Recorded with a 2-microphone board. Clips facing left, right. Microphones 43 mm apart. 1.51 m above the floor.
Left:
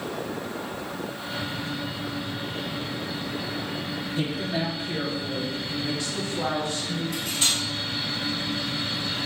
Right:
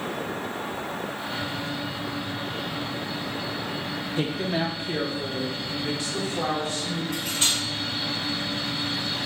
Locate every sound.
4.2 s a woman speaking: 35° right (ahead or behind), 0.7 m; by 7.0 s 70° right (ahead or behind), 2.5 m
7.1 s cutlery clinking: 35° right (ahead or behind), 3 m